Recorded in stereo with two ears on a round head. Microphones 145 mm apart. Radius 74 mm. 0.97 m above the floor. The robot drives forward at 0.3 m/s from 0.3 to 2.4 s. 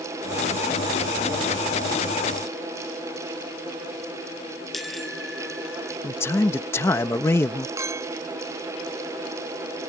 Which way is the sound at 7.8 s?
20° right (ahead or behind).